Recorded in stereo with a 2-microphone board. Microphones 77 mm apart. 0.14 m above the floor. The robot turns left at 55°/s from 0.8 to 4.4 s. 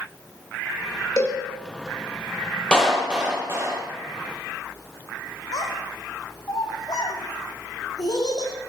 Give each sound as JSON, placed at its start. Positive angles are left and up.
{"t": 1.2, "sound": "a cowbell", "side_deg": 50, "distance_m": 2.5}
{"t": 2.7, "sound": "a clap", "azimuth_deg": 10, "distance_m": 4.0}
{"t": 5.5, "sound": "a child speaking", "side_deg": 60, "distance_m": 4.5}